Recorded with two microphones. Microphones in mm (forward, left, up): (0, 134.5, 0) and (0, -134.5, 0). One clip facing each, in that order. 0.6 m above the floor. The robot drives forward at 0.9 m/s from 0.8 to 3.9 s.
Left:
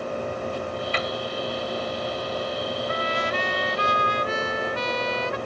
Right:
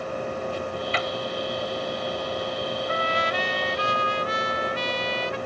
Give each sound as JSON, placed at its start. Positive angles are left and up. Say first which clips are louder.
{"t": 0.9, "sound": "a piano", "louder": "even", "side_deg": 50}
{"t": 2.9, "sound": "a trumpet", "louder": "even", "side_deg": 50}